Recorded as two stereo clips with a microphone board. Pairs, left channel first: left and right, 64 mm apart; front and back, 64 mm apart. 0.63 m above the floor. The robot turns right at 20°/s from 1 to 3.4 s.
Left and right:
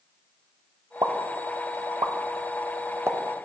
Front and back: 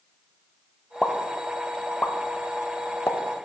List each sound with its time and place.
1.0 s a pop: 85° right, 0.6 m; by 3.2 s 45° right, 0.6 m